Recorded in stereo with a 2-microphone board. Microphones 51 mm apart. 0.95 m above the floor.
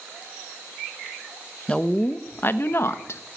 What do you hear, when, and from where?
1.7 s a woman speaking: 20° left (ahead or behind), 0.8 m; by 3.2 s 60° left (ahead or behind), 1.1 m